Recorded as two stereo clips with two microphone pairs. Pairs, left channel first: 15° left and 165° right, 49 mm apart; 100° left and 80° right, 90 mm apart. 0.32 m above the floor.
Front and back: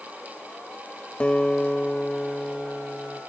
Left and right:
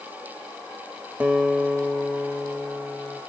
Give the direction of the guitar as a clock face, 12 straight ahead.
1 o'clock.